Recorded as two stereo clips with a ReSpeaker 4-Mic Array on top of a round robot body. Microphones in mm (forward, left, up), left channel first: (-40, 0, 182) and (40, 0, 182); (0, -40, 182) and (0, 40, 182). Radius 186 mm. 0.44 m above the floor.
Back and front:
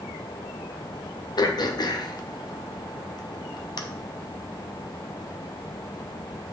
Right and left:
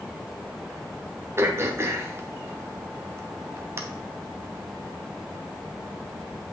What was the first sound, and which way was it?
Throat clearing, 145° left.